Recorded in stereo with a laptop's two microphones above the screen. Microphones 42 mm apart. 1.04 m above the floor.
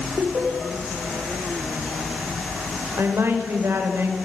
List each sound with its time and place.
0.2 s laughter: 65° right (ahead or behind), 4.5 m
3.0 s a woman speaking: 85° right, 4.5 m